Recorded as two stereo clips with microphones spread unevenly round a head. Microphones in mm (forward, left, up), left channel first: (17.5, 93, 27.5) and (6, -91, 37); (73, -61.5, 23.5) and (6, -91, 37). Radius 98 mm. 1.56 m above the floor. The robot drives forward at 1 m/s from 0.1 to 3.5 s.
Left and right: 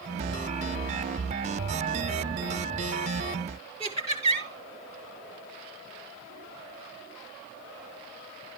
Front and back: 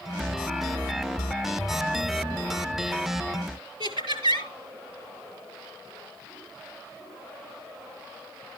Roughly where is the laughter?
Behind.